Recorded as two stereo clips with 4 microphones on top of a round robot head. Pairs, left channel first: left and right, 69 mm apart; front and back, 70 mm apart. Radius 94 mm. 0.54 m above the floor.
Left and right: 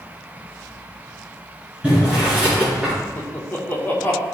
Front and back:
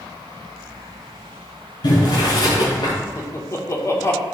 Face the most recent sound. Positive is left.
turn(degrees=35)